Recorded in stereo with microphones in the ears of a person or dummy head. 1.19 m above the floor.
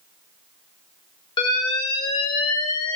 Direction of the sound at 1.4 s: 25° left (ahead or behind).